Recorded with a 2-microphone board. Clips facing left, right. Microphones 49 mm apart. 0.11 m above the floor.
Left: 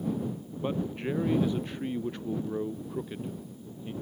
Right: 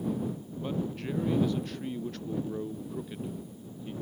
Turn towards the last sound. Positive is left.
turn(degrees=15)  # may be behind; listen again after turning